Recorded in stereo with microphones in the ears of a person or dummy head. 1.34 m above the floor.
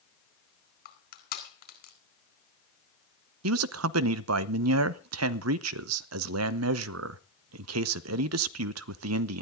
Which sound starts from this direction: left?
Crushing, at 0.8 s.